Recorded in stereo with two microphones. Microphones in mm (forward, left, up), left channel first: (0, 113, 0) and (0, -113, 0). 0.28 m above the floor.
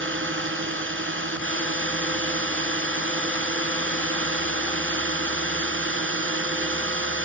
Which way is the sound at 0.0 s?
65° right (ahead or behind).